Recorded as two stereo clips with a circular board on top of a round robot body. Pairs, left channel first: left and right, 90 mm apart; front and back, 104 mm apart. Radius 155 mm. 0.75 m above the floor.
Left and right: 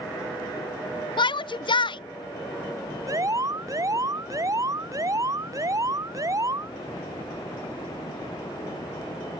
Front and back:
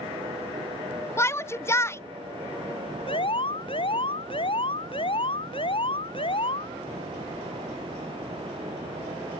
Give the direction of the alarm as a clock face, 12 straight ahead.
1 o'clock.